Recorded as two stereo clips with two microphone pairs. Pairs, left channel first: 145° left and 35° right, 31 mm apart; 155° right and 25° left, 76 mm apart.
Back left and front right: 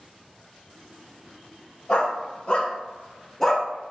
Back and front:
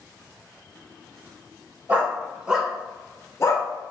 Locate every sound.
1.9 s a dog barking: 85° left, 0.9 m; by 3.7 s 135° right, 0.6 m